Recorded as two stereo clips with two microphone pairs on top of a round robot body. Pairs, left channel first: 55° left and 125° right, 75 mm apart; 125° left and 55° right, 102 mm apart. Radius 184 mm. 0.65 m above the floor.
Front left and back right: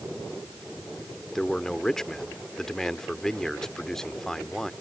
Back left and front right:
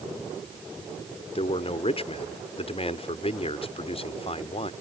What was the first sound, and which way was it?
A man speaking, 135° left.